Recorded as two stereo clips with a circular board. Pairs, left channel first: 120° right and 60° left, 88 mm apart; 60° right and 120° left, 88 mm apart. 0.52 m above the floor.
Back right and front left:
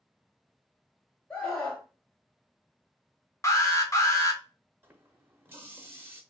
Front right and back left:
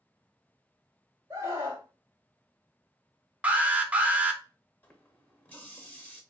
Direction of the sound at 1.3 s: 165° left.